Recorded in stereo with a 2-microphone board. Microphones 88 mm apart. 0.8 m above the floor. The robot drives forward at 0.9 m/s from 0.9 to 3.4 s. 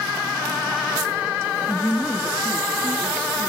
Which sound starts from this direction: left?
A woman speaking, at 1.7 s.